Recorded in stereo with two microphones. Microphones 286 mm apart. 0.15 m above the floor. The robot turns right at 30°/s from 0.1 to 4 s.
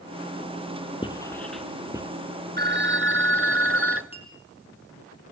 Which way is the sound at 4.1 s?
20° left (ahead or behind).